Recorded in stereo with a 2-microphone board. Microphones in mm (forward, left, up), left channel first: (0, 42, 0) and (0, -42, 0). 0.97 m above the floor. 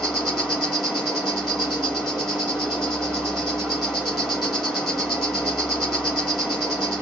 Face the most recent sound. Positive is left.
turn(degrees=5)  # may be behind; listen again after turning